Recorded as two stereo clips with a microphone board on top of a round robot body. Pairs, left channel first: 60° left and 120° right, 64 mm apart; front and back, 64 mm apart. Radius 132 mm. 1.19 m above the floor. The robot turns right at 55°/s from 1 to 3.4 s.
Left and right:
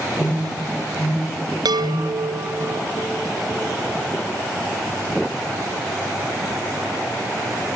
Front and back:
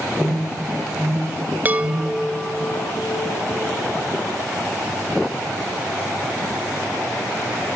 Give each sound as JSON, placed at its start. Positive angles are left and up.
{"t": 0.2, "sound": "an alarm", "azimuth_deg": 90, "distance_m": 7.0}
{"t": 1.6, "sound": "a chime", "azimuth_deg": -115, "distance_m": 1.0}